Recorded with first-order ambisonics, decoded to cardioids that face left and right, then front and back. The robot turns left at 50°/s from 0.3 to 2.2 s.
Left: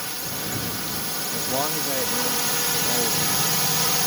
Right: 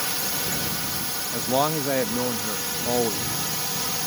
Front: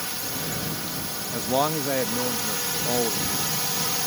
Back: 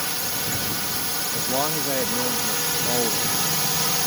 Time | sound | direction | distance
0.0 | a drone | 140° right | ?
1.3 | a man speaking | 50° right | ?